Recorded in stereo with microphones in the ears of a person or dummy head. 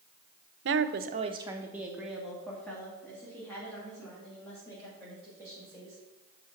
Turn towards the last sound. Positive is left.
turn(degrees=10)  # may be behind; listen again after turning